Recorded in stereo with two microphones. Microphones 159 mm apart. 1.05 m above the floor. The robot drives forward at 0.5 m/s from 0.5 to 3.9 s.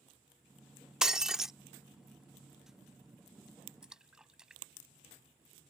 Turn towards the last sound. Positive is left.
turn(degrees=-5)  # may be behind; listen again after turning